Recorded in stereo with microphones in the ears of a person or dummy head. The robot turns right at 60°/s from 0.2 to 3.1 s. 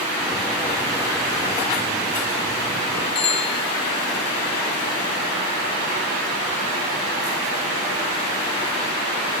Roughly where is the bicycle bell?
Left.